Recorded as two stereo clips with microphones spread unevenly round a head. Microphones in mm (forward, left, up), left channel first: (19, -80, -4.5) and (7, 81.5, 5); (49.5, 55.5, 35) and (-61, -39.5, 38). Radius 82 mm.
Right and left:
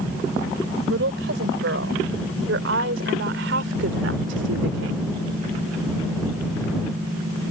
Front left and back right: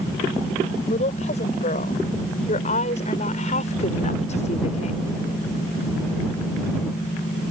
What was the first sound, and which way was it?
A woman speaking, 85° left.